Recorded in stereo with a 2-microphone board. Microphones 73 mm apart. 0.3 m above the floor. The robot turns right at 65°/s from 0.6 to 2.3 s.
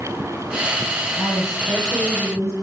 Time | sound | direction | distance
1.2 | a woman speaking | 145° left | 8.5 m